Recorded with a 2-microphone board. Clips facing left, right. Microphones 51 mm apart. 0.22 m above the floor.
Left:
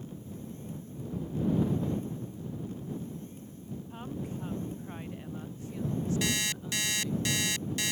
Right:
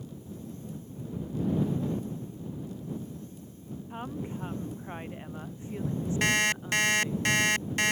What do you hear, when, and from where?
3.9 s a woman speaking: 25° right (ahead or behind)
6.2 s an alarm clock: 45° right (ahead or behind)